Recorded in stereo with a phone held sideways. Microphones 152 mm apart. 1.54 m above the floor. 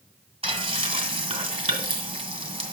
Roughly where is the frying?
Right.